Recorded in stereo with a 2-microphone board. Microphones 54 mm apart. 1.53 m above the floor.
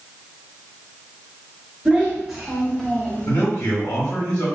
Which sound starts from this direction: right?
A child speaking, at 1.9 s.